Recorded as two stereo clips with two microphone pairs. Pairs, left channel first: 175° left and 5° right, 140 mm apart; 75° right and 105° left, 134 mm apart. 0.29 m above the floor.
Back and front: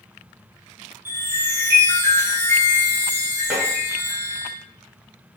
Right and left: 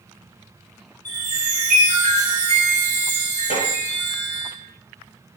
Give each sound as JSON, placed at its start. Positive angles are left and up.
{"t": 1.1, "sound": "a chime", "azimuth_deg": -80, "distance_m": 4.0}
{"t": 3.5, "sound": "tapping", "azimuth_deg": -85, "distance_m": 4.0}